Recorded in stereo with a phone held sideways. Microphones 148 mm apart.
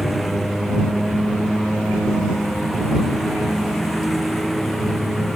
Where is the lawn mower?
Centre (ahead or behind).